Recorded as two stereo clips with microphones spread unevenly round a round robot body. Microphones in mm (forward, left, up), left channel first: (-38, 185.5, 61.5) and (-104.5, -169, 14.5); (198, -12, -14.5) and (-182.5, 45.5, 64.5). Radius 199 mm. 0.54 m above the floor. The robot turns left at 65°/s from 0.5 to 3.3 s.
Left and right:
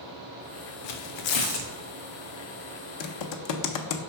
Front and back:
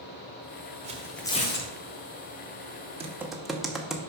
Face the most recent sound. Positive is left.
turn(degrees=70)